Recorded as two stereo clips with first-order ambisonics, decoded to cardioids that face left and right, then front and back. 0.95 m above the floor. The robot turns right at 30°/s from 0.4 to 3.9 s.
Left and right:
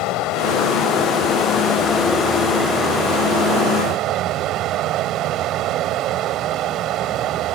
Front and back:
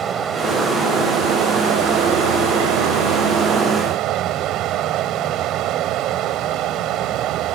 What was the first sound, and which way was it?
Running water, 120° left.